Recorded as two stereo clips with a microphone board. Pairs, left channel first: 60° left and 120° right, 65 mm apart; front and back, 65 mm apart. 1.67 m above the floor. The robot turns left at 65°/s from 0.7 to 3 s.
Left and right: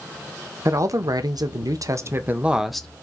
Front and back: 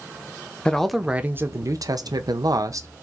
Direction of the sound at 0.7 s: 80° right.